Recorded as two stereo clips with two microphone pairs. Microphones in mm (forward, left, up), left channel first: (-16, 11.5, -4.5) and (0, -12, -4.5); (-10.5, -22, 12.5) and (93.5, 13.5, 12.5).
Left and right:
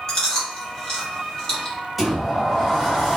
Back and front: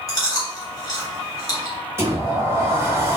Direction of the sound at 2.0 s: 35° left.